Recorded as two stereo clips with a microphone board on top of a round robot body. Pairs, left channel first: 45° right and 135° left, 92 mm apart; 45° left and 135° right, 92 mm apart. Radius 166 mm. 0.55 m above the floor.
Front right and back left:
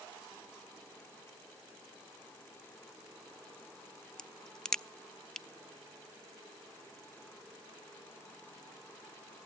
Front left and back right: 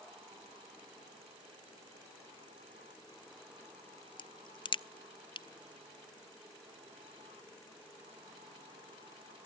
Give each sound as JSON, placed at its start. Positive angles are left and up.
{"t": 4.2, "sound": "a crack", "azimuth_deg": 35, "distance_m": 0.6}